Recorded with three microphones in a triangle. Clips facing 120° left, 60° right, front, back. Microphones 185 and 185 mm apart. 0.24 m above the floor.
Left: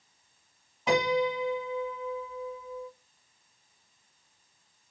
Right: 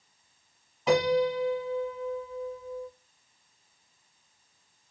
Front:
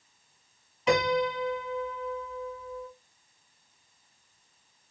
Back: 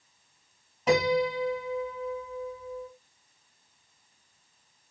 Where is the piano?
150° right, 1.8 m.